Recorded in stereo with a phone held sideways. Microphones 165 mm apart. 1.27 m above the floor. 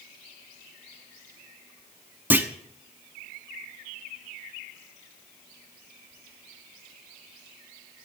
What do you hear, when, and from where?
2.3 s a clunk: 10° right (ahead or behind), 1.2 m